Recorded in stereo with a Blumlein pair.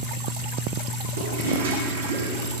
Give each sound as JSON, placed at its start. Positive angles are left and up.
{"t": 1.2, "sound": "a toilet flushing", "azimuth_deg": -70, "distance_m": 1.5}